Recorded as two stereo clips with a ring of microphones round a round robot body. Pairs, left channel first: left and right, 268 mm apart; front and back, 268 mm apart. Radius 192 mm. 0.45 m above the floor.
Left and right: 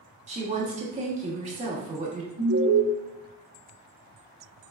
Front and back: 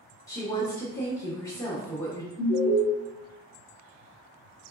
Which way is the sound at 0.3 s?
65° right.